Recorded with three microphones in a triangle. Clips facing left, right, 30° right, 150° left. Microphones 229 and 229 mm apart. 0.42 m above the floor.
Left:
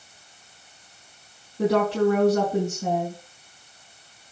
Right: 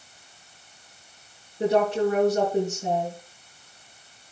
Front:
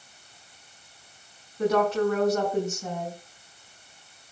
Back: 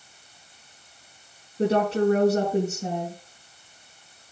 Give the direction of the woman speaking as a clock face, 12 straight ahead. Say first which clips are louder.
Left 1 dB, back 1 dB; 9 o'clock.